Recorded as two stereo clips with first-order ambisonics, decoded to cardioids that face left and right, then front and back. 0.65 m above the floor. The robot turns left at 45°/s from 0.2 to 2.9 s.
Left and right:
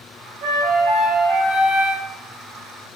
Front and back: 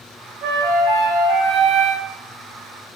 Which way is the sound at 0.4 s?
135° right.